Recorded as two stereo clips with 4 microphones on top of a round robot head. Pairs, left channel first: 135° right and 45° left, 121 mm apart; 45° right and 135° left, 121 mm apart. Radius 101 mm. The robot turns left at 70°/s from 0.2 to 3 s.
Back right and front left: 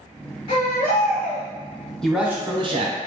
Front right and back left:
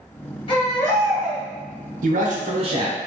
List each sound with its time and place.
0.5 s a baby crying: 90° right, 0.7 m; by 1.4 s 155° right, 0.7 m
2.0 s a man speaking: 140° left, 0.7 m; by 3.0 s 70° left, 0.7 m